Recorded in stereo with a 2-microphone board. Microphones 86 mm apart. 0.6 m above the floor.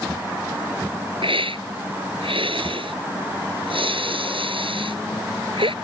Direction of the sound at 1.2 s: 80° right.